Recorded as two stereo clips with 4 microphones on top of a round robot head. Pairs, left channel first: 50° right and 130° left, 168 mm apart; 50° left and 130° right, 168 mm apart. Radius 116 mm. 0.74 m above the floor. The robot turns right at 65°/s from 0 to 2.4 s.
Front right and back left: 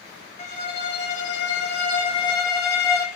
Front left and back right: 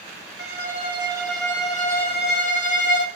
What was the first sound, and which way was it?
A violin, 105° right.